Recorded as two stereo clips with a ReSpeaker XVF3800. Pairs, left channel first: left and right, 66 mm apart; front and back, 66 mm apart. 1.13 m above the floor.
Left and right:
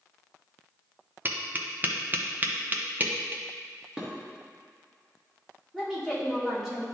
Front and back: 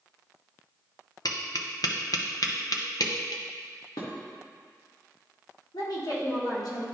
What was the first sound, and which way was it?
Tapping, 30° right.